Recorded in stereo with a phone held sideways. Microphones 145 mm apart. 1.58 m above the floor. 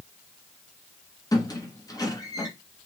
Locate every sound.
1.3 s a squeak: 25° left (ahead or behind), 1.6 m